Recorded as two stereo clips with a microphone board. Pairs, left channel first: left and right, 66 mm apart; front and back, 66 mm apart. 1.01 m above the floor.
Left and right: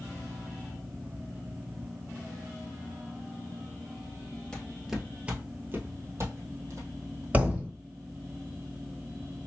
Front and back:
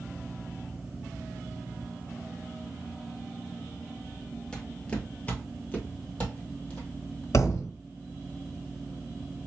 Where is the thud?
30° right, 1.5 m.